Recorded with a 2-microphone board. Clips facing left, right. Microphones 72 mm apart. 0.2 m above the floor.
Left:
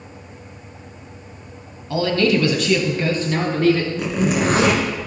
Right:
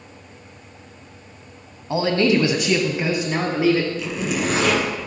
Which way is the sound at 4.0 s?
50° left (ahead or behind).